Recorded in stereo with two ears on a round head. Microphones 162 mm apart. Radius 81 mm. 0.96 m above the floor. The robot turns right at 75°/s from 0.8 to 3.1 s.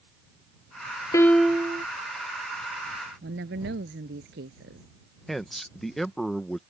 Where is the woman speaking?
65° right (ahead or behind).